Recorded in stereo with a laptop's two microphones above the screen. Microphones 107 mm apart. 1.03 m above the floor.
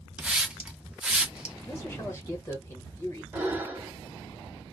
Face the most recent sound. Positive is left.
turn(degrees=-20)  # may be behind; listen again after turning